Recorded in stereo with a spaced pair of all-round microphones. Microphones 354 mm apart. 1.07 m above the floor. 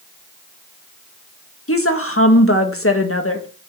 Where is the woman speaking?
40° left (ahead or behind), 1.6 m.